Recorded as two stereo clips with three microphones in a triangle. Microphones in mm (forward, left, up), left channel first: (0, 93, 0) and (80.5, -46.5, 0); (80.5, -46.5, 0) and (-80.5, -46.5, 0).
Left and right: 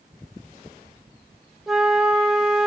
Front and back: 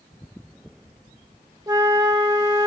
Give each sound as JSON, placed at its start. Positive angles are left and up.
{"t": 1.7, "sound": "a flute", "azimuth_deg": -150, "distance_m": 0.7}